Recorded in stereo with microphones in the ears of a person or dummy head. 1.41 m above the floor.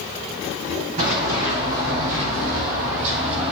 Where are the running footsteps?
50° right (ahead or behind), 3 m; by 3.5 s 30° right (ahead or behind), 1.9 m.